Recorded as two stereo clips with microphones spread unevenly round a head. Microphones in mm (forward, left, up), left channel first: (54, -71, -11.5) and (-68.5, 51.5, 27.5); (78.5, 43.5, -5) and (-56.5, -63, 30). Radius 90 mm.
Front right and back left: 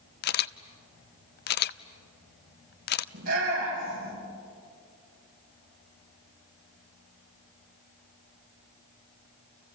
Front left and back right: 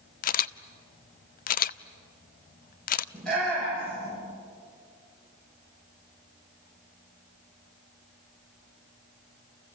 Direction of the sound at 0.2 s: 5° right.